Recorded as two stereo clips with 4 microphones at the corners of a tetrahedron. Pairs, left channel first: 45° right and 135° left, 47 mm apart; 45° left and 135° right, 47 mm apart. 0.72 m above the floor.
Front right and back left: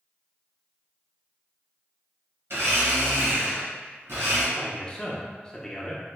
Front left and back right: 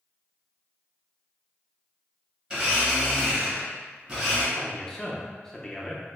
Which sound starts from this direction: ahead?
A man speaking, at 4.5 s.